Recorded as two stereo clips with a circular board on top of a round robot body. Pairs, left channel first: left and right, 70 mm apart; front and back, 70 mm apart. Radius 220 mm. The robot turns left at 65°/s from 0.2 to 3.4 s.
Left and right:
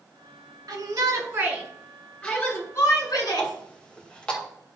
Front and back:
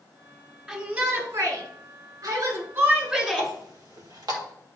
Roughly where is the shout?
Right.